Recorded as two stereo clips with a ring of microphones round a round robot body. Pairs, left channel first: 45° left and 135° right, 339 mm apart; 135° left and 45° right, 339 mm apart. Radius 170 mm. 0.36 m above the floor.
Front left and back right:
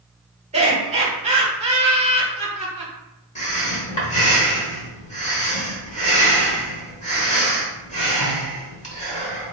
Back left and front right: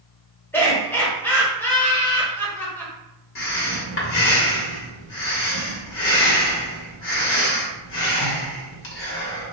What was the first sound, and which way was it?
Laughter, 155° right.